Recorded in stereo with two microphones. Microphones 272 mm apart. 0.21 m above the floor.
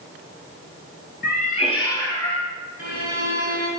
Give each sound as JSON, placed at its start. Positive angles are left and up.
{"t": 1.2, "sound": "a cat meowing", "side_deg": 40, "distance_m": 1.0}
{"t": 2.8, "sound": "a violin", "side_deg": 30, "distance_m": 2.5}